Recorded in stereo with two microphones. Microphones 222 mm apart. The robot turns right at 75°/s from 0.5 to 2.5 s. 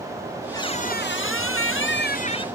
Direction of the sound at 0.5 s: 15° left.